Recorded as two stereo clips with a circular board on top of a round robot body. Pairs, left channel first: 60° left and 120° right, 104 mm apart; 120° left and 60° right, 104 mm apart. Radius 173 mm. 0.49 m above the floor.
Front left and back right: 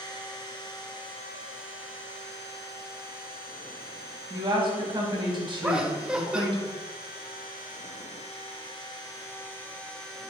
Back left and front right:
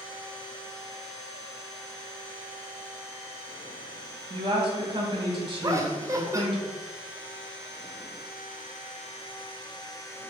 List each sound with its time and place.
4.3 s a woman speaking: 90° right, 1.2 m
5.6 s laughter: 45° right, 0.7 m